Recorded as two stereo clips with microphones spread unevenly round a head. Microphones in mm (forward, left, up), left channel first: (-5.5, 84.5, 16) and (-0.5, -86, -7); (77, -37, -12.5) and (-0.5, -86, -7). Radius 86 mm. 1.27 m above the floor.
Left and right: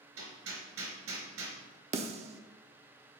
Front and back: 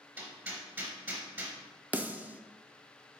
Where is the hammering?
85° right, 3.5 m.